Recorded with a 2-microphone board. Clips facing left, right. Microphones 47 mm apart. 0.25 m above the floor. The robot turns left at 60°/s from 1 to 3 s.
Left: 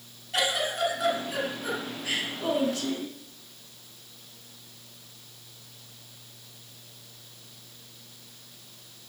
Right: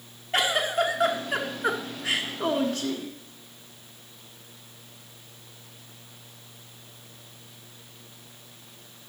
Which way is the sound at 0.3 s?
35° right.